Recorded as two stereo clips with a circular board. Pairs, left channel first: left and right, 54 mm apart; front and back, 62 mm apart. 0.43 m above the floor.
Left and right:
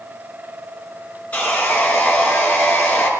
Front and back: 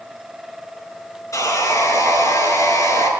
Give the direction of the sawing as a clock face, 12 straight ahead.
11 o'clock.